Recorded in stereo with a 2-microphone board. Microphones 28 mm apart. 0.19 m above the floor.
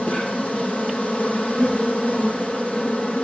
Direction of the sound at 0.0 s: 40° left (ahead or behind).